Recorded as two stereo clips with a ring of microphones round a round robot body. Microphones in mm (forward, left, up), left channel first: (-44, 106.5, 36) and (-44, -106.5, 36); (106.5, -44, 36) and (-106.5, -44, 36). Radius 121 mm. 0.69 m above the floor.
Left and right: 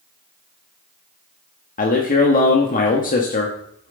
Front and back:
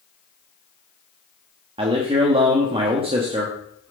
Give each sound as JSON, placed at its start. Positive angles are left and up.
{"t": 1.8, "sound": "a man speaking", "azimuth_deg": 125, "distance_m": 1.3}